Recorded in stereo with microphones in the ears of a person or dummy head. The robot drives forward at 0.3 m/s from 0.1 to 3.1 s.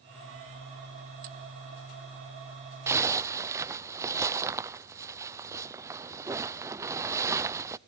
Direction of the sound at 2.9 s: 15° right (ahead or behind).